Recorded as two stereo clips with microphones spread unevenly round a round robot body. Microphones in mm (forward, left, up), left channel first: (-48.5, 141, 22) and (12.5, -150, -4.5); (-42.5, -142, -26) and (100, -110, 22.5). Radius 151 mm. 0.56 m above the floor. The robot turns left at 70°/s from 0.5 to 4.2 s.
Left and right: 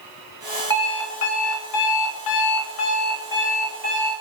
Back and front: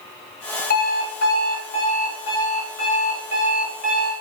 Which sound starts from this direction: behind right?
An alarm clock, at 0.7 s.